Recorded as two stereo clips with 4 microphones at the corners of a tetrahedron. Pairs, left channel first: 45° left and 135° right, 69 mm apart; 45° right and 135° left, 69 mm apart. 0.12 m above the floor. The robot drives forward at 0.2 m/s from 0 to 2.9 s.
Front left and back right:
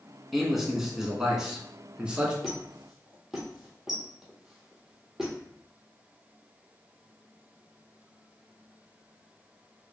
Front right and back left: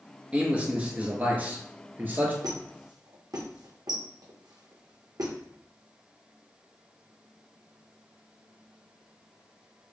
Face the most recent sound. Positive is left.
turn(degrees=140)